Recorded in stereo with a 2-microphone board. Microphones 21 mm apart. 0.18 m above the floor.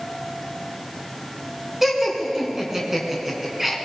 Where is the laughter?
15° right (ahead or behind), 2 m.